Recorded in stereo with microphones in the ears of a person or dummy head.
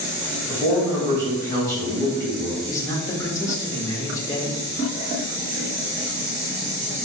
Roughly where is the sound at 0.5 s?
Centre.